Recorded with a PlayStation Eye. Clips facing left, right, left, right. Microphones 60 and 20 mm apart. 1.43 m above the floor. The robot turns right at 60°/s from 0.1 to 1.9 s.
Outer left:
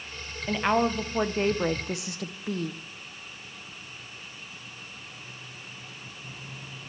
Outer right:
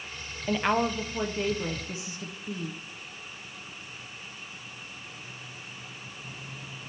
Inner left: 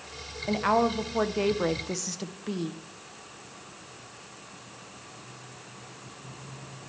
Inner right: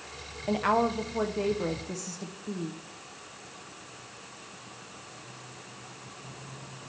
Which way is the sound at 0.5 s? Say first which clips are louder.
Outer left 1 dB, inner left 1 dB; 5° right.